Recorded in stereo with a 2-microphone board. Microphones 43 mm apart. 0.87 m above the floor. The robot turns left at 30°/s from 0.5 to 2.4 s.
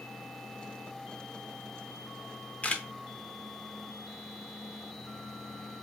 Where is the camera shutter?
30° left (ahead or behind), 0.5 m.